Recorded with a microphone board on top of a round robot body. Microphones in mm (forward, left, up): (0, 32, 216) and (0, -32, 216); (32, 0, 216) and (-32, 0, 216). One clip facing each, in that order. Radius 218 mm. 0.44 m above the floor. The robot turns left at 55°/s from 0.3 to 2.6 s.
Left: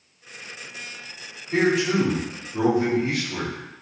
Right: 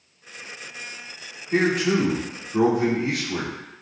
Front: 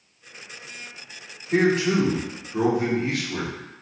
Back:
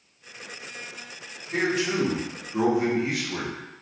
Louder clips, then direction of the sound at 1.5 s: Even, front 5 dB; 40° right.